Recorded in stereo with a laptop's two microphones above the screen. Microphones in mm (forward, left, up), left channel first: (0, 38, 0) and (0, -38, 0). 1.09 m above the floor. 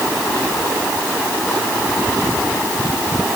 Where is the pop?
No pop in this recording.